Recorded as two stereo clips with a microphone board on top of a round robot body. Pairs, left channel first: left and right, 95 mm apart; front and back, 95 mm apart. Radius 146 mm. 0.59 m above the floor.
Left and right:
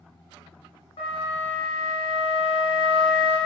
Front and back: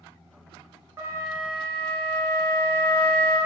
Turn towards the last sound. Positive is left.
turn(degrees=115)